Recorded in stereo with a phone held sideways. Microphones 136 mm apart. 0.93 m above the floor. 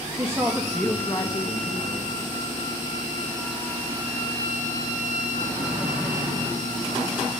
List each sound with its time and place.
0.2 s a woman speaking: 25° right (ahead or behind), 1.4 m; by 2.3 s 55° left (ahead or behind), 2.5 m